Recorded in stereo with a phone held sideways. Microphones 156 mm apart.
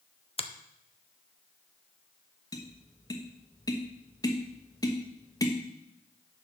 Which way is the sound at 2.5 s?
25° left (ahead or behind).